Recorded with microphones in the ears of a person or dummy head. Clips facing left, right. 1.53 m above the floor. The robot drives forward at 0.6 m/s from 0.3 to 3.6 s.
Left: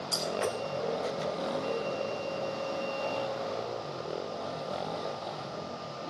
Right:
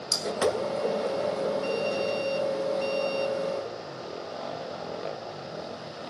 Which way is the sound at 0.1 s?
50° right (ahead or behind).